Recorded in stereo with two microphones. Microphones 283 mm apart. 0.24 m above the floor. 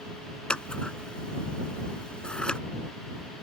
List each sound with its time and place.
0.5 s scissors: 5° left (ahead or behind)